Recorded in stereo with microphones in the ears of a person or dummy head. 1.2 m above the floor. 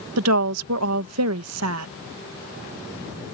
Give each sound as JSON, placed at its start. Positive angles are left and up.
{"t": 0.2, "sound": "a woman speaking", "side_deg": -80}